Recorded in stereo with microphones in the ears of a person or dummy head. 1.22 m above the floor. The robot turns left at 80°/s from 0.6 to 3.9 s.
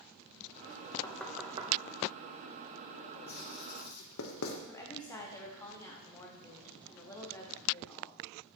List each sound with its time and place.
1.0 s knocking: 25° left (ahead or behind), 1.0 m; by 1.7 s 30° right (ahead or behind), 1.0 m
3.3 s writing: 45° left (ahead or behind), 1.2 m; by 4.6 s 75° left (ahead or behind), 1.2 m
4.7 s a woman speaking: 20° left (ahead or behind), 1.6 m